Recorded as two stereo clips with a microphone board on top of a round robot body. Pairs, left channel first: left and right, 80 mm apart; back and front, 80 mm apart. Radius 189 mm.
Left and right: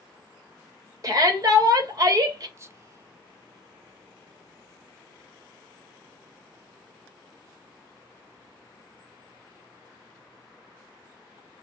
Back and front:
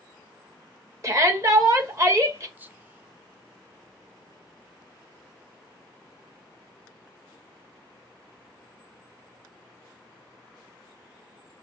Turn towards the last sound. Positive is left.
turn(degrees=-55)